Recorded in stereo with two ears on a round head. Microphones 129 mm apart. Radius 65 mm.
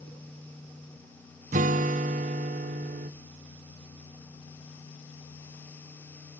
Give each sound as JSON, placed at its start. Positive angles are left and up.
{"t": 1.5, "sound": "a guitar", "side_deg": -55, "distance_m": 0.8}